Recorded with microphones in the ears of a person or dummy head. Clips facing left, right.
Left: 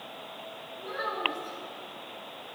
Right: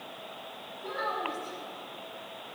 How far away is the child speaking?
About 4.5 m.